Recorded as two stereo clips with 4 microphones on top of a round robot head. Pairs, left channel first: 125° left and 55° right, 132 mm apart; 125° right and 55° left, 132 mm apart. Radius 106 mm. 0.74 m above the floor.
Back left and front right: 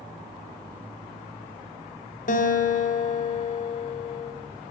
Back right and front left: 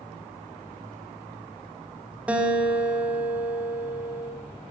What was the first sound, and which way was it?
A guitar, 135° left.